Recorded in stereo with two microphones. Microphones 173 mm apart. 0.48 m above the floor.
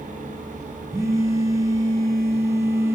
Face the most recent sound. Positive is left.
turn(degrees=-15)  # may be behind; listen again after turning